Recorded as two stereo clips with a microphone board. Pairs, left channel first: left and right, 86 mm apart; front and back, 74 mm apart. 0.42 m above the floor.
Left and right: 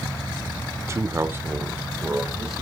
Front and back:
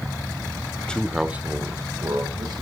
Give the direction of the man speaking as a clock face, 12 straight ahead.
2 o'clock.